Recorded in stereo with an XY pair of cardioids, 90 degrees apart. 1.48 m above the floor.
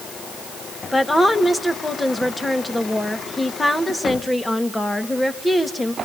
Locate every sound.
0.9 s a woman speaking: 15° left, 2 m